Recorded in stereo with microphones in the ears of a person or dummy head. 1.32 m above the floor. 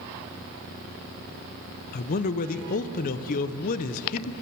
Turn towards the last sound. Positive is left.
turn(degrees=40)  # may be behind; listen again after turning